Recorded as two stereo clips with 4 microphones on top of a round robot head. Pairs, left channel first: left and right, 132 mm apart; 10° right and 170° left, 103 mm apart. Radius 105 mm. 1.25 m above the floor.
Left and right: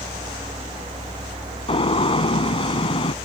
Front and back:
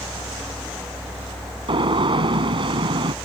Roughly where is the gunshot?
Behind left.